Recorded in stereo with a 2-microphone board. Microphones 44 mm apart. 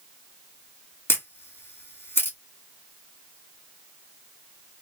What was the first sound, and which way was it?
A camera shutter, 60° left (ahead or behind).